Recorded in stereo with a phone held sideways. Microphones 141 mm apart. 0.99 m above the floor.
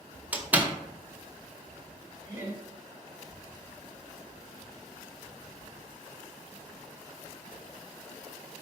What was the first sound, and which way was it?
A door slam, 10° right (ahead or behind).